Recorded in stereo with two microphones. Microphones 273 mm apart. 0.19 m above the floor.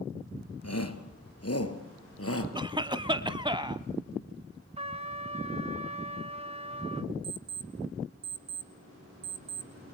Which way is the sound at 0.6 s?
65° left (ahead or behind).